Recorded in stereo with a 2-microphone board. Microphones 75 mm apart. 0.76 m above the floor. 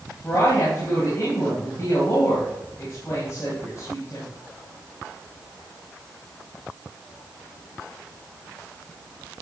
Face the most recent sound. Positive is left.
turn(degrees=40)  # may be behind; listen again after turning